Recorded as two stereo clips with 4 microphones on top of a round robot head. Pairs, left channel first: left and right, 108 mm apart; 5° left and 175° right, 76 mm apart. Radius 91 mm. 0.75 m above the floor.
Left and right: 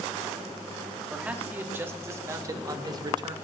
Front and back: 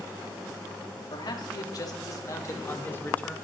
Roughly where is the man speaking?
Ahead.